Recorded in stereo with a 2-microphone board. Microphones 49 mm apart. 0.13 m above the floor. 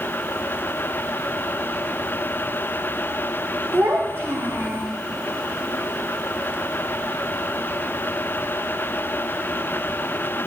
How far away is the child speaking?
About 6.5 m.